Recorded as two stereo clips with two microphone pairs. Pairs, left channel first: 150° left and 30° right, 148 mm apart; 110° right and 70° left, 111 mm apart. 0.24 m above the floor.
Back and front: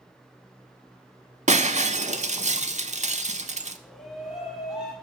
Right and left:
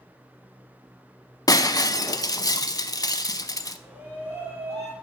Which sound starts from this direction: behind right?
A shout, at 3.8 s.